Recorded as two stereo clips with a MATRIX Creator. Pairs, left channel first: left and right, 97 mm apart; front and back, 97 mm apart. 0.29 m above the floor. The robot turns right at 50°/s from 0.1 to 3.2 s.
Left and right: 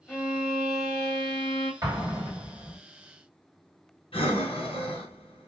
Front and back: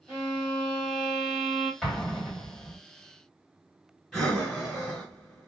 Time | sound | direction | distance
0.1 | a violin | 140° left | 1.7 m
1.8 | an explosion | 90° right | 1.6 m
4.1 | breathing | 90° left | 1.2 m